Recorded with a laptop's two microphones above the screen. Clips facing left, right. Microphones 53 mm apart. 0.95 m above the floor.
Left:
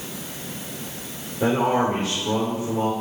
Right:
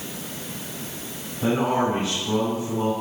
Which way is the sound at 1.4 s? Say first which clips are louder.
Left 2 dB; 80° left.